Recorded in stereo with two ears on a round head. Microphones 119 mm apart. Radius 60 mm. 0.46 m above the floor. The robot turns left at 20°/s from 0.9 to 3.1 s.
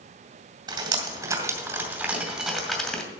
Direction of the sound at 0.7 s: 35° right (ahead or behind).